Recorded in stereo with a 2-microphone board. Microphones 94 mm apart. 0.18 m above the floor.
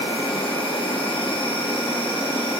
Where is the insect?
80° left, 0.9 m.